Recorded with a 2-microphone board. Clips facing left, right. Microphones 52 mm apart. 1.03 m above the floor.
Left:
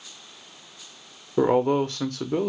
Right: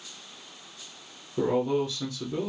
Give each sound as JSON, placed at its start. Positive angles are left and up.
{"t": 1.4, "sound": "a man speaking", "side_deg": 50, "distance_m": 0.6}